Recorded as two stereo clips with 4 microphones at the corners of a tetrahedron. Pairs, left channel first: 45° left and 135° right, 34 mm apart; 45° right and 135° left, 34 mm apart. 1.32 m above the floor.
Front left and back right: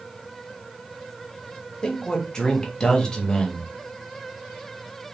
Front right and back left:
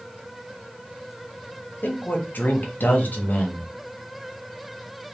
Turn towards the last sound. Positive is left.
turn(degrees=-25)